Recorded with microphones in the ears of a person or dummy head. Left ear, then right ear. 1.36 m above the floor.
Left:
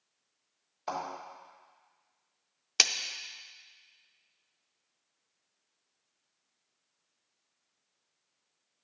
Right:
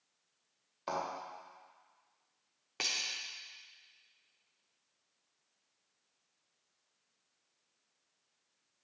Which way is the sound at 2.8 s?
70° left (ahead or behind).